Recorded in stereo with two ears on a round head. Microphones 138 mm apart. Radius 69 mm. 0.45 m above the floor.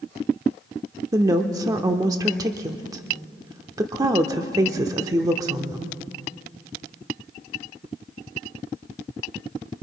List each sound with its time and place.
1.1 s a woman speaking: 20° right (ahead or behind), 0.9 m